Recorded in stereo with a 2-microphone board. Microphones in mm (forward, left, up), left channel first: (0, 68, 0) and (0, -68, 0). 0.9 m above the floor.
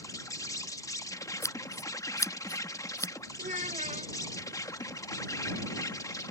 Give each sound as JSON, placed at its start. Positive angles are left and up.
{"t": 0.0, "sound": "an insect", "side_deg": 25}
{"t": 1.4, "sound": "scissors", "side_deg": 20}
{"t": 3.4, "sound": "a child speaking", "side_deg": -65}